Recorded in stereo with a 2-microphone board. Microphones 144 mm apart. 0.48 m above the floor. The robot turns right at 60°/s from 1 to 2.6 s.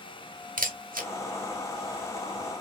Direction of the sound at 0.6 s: 75° right (ahead or behind).